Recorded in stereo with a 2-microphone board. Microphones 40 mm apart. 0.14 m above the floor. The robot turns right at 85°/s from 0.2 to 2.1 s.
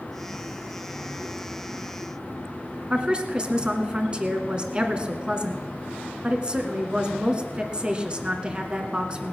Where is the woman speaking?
25° right (ahead or behind), 1.5 m.